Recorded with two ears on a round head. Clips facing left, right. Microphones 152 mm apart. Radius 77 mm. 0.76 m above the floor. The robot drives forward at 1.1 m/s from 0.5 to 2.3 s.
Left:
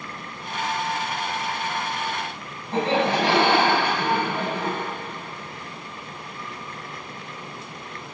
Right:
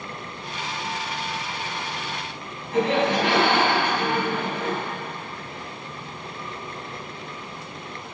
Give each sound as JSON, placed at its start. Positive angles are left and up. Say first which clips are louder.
{"t": 2.7, "sound": "laughter", "louder": "right 1 dB", "side_deg": 30, "distance_m": 7.5}